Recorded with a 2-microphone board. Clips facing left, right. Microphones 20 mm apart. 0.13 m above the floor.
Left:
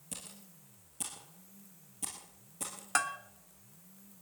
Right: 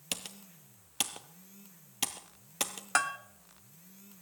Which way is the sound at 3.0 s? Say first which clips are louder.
Right 3 dB; 10° right (ahead or behind).